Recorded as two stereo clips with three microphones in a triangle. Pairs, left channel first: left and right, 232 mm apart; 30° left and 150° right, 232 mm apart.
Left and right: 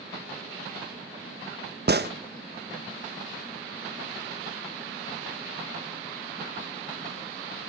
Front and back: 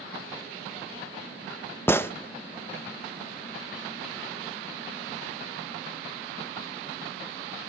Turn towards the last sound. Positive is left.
turn(degrees=-50)